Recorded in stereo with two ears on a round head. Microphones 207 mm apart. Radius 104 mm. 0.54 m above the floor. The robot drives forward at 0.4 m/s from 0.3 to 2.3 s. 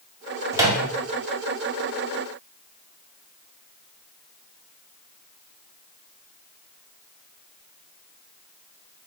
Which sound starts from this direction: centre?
A microwave, at 0.5 s.